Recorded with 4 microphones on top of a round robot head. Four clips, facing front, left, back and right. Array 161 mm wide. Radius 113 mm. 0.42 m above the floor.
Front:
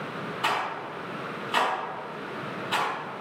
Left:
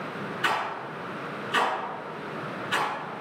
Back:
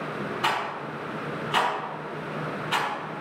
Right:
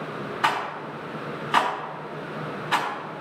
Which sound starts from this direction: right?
A rattle, at 0.4 s.